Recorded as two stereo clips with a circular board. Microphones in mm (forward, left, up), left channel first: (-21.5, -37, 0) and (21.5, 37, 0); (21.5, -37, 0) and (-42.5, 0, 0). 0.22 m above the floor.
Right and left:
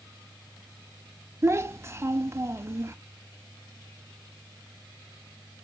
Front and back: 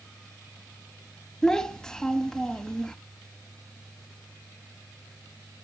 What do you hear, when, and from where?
1.4 s a child speaking: 40° left, 0.6 m